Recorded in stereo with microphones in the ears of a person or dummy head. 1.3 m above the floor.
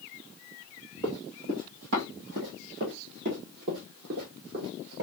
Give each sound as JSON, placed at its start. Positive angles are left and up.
{"t": 1.0, "sound": "running footsteps", "side_deg": -55, "distance_m": 2.5}